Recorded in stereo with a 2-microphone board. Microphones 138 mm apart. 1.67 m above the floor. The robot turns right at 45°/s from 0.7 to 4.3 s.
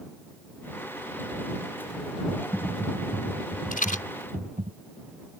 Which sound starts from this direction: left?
A rattle, at 3.7 s.